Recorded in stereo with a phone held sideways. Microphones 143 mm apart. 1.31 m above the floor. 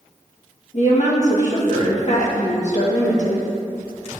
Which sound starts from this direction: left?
A woman speaking, at 0.7 s.